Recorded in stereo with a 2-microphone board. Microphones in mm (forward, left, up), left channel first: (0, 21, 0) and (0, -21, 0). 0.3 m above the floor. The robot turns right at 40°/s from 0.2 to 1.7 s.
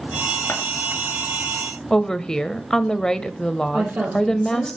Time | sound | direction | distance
0.5 | scissors | 75° left (ahead or behind) | 2.5 m
1.9 | a woman speaking | 15° left (ahead or behind) | 1.0 m
3.7 | a woman speaking | 40° right (ahead or behind) | 9.5 m